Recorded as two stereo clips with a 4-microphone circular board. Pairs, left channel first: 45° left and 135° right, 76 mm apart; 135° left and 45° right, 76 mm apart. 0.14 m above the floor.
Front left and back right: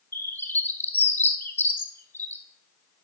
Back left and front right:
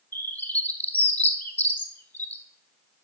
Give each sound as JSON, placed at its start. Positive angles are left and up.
{"t": 0.1, "sound": "a bird", "azimuth_deg": 85, "distance_m": 0.8}